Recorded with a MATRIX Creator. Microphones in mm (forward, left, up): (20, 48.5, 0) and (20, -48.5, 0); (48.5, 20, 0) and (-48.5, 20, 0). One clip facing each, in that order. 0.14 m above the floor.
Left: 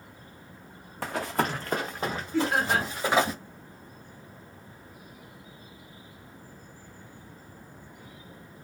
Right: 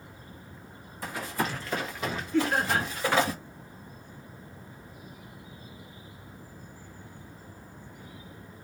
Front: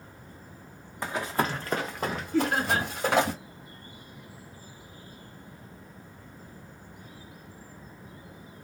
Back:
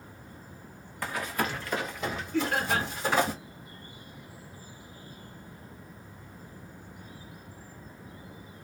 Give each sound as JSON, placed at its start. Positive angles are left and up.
{"t": 1.0, "sound": "running footsteps", "azimuth_deg": 70, "distance_m": 0.7}
{"t": 2.3, "sound": "laughter", "azimuth_deg": 15, "distance_m": 1.7}